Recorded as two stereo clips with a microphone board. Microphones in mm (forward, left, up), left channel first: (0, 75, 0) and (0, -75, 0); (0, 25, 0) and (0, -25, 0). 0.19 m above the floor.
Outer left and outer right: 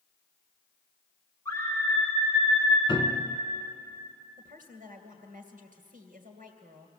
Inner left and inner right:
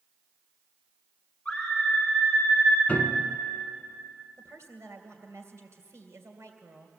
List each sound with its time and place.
1.4 s a scream: 20° left (ahead or behind), 2.5 m; by 2.8 s 10° left (ahead or behind), 3.5 m
2.9 s a piano: 30° left (ahead or behind), 1.0 m
4.4 s a woman speaking: 65° right (ahead or behind), 2.5 m